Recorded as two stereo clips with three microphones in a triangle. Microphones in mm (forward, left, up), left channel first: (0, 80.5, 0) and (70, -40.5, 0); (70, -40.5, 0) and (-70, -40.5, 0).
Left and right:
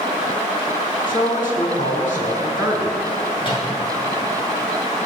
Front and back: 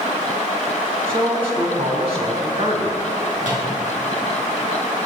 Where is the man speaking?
135° left, 4.5 m.